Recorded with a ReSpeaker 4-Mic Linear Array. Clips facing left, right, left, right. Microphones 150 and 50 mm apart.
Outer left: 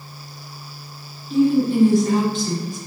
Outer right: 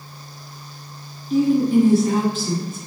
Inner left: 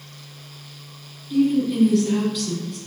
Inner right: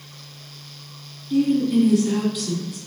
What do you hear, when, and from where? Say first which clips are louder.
1.3 s a woman speaking: outer right 1 dB, inner right 1 dB; 5° right (ahead or behind), 1.2 m